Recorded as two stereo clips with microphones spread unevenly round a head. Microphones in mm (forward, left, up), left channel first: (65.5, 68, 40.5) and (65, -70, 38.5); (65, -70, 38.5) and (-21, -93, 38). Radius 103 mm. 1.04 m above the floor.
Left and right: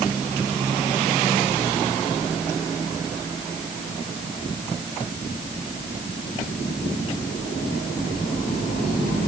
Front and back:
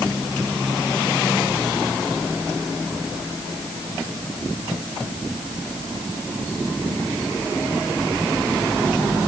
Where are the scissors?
No scissors in this recording.